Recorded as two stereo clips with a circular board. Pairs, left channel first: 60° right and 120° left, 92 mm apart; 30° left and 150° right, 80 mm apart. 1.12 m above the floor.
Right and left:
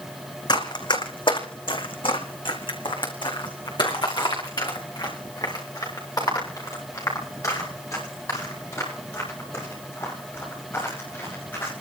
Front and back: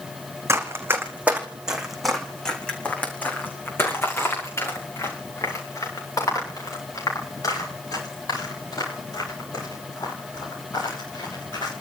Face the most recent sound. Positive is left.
turn(degrees=5)